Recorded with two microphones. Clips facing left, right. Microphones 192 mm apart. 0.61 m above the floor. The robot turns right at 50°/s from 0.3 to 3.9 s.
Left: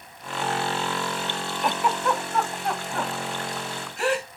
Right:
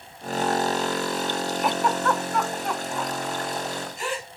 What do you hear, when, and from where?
1.6 s a giggle: 5° right (ahead or behind), 1.1 m; by 4.3 s 65° left (ahead or behind), 1.1 m